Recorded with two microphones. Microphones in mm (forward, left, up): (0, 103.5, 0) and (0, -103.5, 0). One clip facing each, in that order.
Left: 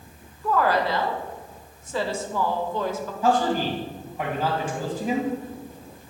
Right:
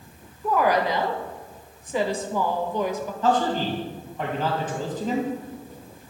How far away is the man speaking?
About 2.5 m.